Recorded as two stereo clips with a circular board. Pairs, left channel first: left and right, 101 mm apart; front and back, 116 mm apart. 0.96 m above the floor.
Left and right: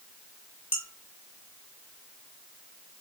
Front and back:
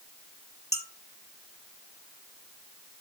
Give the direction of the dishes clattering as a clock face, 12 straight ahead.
8 o'clock.